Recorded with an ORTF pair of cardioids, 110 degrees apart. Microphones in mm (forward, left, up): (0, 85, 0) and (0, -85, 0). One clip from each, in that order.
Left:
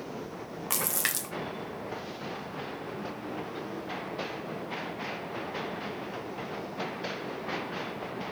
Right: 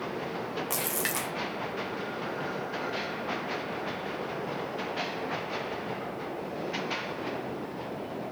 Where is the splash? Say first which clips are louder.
Left 2 dB; 25° left, 1.4 m.